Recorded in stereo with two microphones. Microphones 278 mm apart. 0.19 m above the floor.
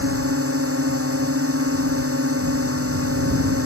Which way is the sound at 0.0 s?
55° right (ahead or behind).